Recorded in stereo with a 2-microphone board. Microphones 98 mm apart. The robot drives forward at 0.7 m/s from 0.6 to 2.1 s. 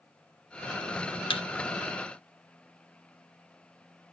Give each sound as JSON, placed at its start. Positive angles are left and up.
{"t": 1.3, "sound": "a thud", "side_deg": 60, "distance_m": 1.0}